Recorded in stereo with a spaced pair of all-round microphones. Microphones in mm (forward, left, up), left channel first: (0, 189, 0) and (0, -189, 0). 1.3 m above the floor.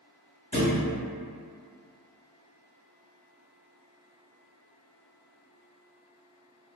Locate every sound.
0.5 s a thud: 50° left (ahead or behind), 1.7 m